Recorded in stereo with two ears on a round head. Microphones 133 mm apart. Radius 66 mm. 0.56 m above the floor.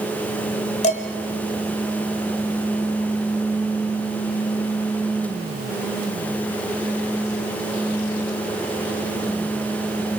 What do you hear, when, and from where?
0.8 s dishes clattering: 50° left (ahead or behind), 1.6 m